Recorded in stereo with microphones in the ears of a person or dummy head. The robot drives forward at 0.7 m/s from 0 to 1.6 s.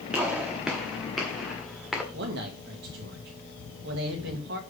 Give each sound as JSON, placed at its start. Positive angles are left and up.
{"t": 0.1, "sound": "a gunshot", "side_deg": -5, "distance_m": 1.0}
{"t": 2.1, "sound": "a man speaking", "side_deg": -60, "distance_m": 2.0}